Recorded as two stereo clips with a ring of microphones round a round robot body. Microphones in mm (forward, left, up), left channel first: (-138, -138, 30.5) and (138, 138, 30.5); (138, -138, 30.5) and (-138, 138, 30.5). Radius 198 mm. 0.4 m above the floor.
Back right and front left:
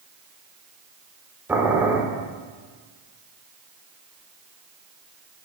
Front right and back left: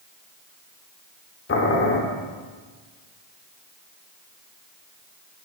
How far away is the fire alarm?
No fire alarm in this recording.